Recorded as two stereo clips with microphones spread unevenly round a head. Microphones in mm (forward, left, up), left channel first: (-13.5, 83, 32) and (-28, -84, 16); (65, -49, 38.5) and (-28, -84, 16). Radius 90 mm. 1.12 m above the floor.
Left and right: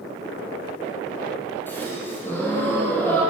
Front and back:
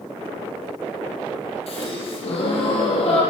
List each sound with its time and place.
1.7 s a gasp: 5° left, 8 m